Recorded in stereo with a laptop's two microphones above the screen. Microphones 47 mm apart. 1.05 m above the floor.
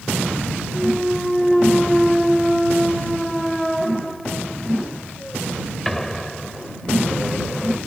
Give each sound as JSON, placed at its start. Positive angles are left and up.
{"t": 0.7, "sound": "a clunk", "side_deg": 5}